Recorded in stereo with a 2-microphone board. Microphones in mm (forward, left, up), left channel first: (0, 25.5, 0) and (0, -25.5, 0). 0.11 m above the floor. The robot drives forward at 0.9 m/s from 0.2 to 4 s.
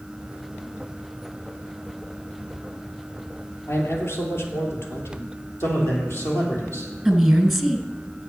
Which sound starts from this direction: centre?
A woman speaking, at 7.0 s.